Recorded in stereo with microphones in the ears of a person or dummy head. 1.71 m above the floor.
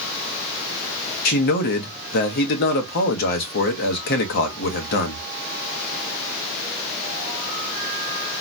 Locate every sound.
1.2 s a man speaking: 60° left (ahead or behind), 0.9 m